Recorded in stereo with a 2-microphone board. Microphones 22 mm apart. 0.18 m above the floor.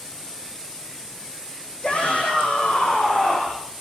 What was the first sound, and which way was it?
A shout, 60° left (ahead or behind).